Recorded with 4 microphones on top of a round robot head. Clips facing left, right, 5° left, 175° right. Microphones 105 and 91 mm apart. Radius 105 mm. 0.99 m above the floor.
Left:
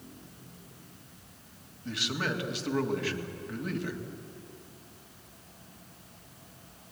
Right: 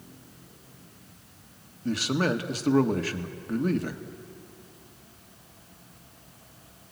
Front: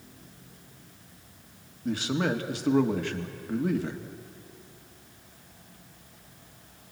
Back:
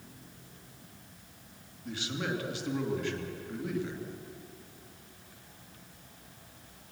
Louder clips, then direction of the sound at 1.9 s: Right 7 dB, front 8 dB; 45° right.